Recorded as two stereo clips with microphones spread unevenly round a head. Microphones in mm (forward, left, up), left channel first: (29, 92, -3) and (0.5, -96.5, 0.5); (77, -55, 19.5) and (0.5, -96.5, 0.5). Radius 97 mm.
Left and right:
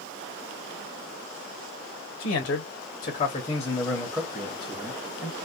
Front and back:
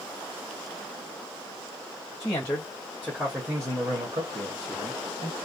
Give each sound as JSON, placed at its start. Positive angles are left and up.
{"t": 2.2, "sound": "a man speaking", "azimuth_deg": 85, "distance_m": 0.9}